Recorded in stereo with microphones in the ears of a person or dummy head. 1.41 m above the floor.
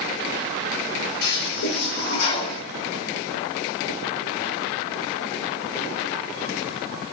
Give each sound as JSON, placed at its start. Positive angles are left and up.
{"t": 1.2, "sound": "a toilet flushing", "side_deg": 65, "distance_m": 3.5}